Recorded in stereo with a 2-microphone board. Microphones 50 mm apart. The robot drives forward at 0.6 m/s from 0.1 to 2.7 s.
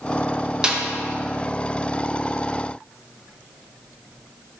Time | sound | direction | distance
0.6 | a snare drum | 15° right (ahead or behind) | 0.7 m